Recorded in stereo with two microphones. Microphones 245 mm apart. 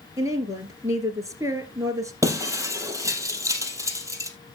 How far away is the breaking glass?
About 2 m.